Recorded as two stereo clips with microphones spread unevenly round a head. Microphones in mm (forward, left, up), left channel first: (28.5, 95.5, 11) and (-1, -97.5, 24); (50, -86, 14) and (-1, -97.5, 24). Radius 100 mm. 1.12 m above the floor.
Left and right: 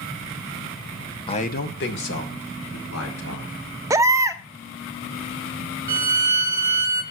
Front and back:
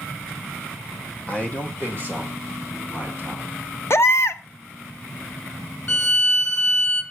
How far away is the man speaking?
About 0.6 m.